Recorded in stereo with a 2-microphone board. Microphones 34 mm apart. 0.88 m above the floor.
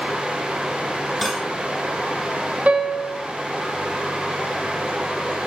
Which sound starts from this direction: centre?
Cutlery clinking, at 1.2 s.